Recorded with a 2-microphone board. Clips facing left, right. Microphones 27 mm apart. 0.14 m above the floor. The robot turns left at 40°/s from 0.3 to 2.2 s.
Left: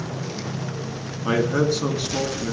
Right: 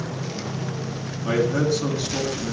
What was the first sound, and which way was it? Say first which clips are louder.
A man speaking: left 1 dB; 70° left.